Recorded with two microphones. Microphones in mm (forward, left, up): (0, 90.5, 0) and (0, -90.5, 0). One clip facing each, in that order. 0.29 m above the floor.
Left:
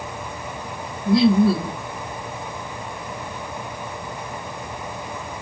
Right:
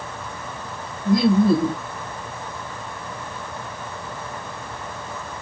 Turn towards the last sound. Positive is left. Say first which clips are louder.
# left 1 dB
turn(degrees=-45)  # may be behind; listen again after turning